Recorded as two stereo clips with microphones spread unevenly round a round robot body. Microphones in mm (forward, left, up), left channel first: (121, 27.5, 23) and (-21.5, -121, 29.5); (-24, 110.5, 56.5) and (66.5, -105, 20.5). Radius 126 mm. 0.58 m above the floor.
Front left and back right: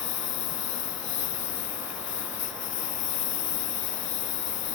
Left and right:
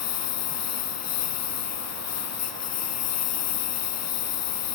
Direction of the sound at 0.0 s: 95° left.